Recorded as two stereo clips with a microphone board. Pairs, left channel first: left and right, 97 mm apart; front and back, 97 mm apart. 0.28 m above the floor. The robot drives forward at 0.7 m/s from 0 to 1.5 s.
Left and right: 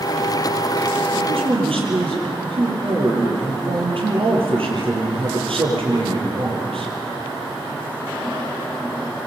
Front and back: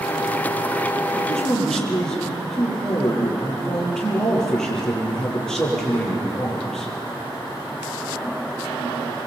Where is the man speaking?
80° right, 8.5 m; by 6.9 s 85° right, 8.5 m.